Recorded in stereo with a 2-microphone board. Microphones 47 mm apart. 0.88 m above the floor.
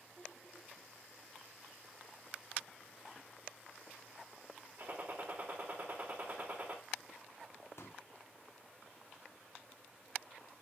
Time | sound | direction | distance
4.8 | a gunshot | 45° right (ahead or behind) | 2.5 m
7.8 | a pop | 80° left | 1.2 m